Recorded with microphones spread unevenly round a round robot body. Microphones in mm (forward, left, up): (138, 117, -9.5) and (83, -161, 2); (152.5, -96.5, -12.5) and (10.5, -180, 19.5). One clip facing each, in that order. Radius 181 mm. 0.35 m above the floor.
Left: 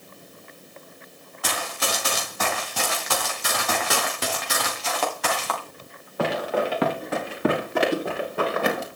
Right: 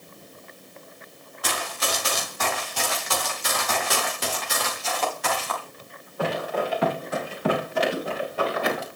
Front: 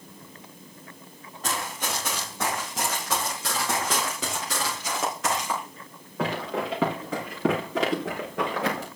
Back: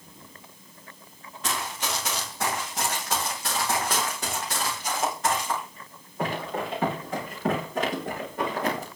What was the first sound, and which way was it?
Running footsteps, 105° left.